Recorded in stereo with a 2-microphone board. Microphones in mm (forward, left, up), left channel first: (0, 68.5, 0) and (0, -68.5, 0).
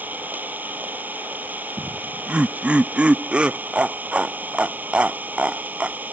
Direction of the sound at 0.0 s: 15° right (ahead or behind).